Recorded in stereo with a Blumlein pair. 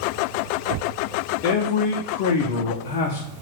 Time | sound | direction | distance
1.4 | a man speaking | 45° left | 0.5 m